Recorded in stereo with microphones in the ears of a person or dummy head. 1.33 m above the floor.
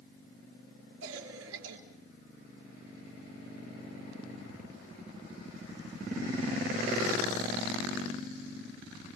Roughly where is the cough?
Right.